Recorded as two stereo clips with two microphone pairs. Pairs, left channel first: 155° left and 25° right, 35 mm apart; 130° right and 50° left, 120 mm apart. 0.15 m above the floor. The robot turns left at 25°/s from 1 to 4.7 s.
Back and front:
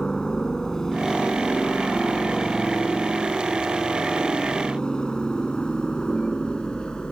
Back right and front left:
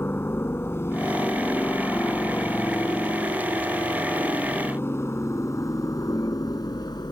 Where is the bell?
I don't hear a bell.